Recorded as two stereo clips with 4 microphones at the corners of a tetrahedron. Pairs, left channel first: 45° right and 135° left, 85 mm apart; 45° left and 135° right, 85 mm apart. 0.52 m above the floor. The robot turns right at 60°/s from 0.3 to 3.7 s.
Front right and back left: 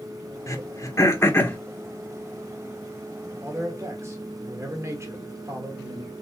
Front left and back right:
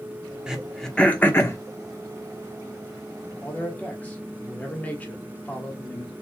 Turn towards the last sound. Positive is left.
turn(degrees=110)